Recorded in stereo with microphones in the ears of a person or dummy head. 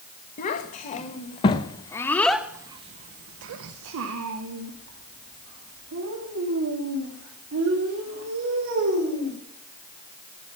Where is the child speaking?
40° left (ahead or behind), 1.4 m; by 9.4 s 70° right (ahead or behind), 3.5 m.